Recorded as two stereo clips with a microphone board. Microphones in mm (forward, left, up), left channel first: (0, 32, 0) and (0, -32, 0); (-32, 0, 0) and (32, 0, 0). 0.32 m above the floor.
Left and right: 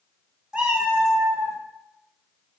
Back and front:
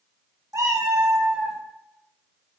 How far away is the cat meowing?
About 1.1 m.